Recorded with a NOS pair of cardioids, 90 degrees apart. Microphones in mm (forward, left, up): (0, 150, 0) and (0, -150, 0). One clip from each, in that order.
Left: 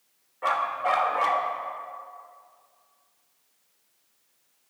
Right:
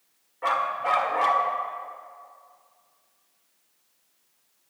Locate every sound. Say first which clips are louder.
0.4 s a dog barking: even; straight ahead, 1.5 m